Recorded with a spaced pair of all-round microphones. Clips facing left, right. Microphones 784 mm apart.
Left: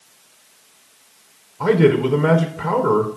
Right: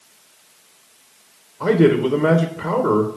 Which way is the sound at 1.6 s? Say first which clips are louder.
Even; 30° left (ahead or behind).